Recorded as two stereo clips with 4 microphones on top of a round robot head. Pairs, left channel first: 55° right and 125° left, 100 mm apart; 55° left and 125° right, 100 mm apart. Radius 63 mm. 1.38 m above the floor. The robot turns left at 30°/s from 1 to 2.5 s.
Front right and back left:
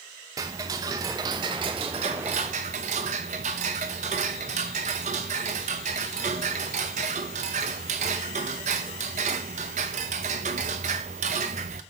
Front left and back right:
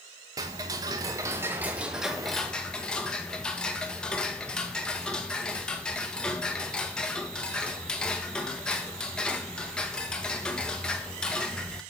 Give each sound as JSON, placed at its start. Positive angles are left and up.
{"t": 0.4, "sound": "ticking", "azimuth_deg": 180, "distance_m": 0.8}